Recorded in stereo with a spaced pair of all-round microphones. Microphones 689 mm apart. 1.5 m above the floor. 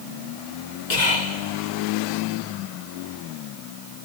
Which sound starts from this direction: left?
Whispering, at 0.9 s.